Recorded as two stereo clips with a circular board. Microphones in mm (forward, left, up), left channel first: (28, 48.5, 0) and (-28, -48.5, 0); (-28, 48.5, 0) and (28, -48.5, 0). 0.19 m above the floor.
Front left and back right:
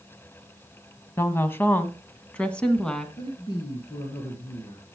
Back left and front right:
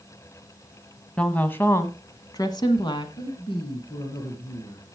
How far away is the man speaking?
About 2.5 m.